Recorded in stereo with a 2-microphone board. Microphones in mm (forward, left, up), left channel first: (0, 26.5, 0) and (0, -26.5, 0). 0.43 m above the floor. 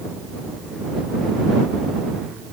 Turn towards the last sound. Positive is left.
No sound to turn to.